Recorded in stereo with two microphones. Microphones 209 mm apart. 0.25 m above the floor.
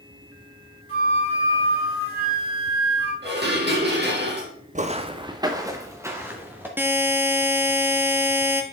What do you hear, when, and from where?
0.9 s a flute: 70° right (ahead or behind), 4 m
3.2 s dishes clattering: 50° right (ahead or behind), 3 m
4.8 s footsteps: 35° right (ahead or behind), 0.6 m; by 6.7 s 10° right (ahead or behind), 2 m
6.8 s a buzzer: 10° right (ahead or behind), 1.1 m